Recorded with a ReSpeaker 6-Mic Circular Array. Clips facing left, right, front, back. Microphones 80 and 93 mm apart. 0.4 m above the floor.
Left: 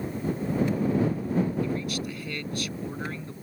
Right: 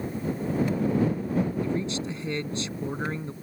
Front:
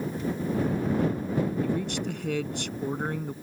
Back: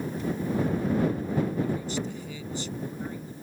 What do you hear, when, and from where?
1.6 s a man speaking: 25° right